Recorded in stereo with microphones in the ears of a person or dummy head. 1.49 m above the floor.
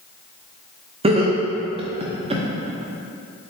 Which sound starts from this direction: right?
Laughter, at 1.0 s.